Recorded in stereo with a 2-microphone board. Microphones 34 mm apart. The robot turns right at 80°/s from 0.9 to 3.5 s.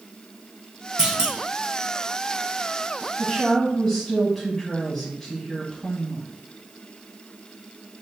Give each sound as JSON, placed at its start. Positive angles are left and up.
{"t": 1.0, "sound": "a clunk", "azimuth_deg": -140, "distance_m": 0.9}
{"t": 3.2, "sound": "a woman speaking", "side_deg": -15, "distance_m": 1.6}